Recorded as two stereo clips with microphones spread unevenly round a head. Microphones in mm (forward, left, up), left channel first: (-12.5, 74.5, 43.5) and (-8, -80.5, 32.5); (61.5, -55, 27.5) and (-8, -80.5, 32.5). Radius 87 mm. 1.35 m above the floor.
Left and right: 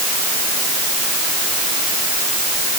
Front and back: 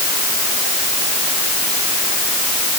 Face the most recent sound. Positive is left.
No sound to turn to.